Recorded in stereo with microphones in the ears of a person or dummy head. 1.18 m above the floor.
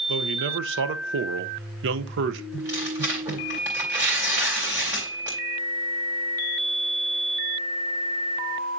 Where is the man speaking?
60° right (ahead or behind), 0.7 m.